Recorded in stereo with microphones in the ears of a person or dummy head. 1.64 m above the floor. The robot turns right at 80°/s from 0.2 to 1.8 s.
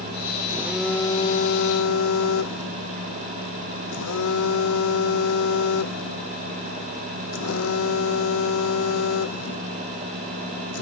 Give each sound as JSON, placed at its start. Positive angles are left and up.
{"t": 0.5, "sound": "a phone buzzing", "azimuth_deg": -20}